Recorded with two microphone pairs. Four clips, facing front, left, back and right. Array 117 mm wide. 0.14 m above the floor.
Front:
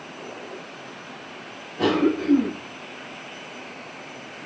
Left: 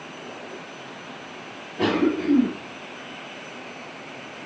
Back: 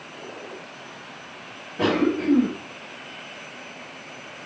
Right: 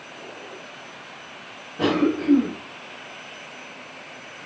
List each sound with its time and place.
1.8 s a cough: 175° right, 1.7 m